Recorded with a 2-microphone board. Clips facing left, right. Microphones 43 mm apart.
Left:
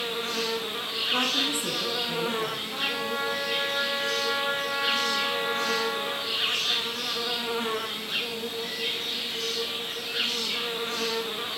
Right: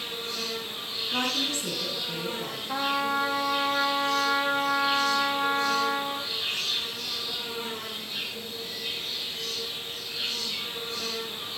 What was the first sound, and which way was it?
An insect, 60° left (ahead or behind).